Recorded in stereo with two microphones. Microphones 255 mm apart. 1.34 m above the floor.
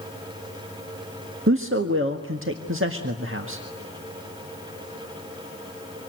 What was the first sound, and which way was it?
A man speaking, 55° right (ahead or behind).